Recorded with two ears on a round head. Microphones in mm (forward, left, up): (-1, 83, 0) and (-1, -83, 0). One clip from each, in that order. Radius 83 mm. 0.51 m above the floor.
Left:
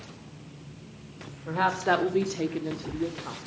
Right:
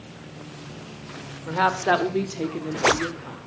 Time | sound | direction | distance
1.5 | a woman speaking | 20° right (ahead or behind) | 1.9 m